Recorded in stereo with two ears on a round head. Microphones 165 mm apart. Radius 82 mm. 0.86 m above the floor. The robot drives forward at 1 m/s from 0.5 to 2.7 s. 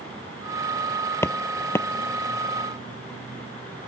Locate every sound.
1.2 s footsteps: 15° left (ahead or behind)